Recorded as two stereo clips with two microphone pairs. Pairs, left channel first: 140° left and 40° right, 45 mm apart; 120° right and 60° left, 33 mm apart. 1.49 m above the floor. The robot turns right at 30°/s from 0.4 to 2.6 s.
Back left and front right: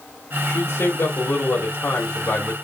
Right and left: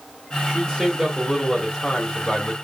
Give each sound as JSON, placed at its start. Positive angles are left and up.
{"t": 0.5, "sound": "a man speaking", "azimuth_deg": 130, "distance_m": 4.0}